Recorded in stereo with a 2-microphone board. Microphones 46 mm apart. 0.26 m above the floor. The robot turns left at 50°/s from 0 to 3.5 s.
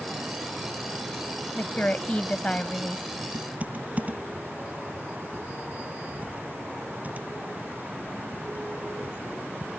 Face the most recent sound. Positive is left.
turn(degrees=-35)  # may be behind; listen again after turning